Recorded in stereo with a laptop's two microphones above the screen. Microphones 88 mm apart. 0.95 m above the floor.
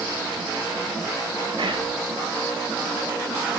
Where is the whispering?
70° right (ahead or behind), 1.6 m.